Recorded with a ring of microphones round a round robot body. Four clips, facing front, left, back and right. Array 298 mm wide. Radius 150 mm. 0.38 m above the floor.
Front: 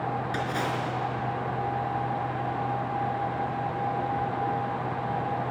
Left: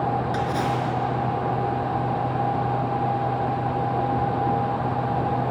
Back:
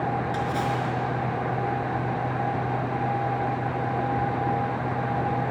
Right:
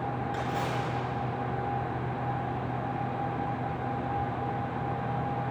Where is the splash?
70° left, 4.5 m.